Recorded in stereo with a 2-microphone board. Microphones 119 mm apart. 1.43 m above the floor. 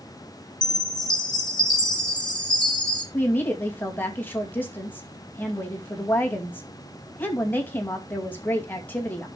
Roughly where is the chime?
Left.